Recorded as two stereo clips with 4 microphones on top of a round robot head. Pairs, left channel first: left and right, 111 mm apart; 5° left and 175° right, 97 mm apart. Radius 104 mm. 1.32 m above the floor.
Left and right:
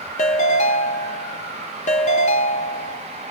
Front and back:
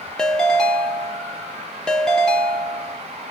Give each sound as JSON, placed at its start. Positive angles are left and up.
{"t": 0.2, "sound": "a ringtone", "azimuth_deg": 85, "distance_m": 0.8}